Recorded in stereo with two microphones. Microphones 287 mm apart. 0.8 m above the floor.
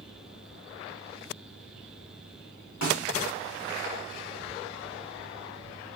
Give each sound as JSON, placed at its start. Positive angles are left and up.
{"t": 2.8, "sound": "a snare drum", "side_deg": 75, "distance_m": 1.6}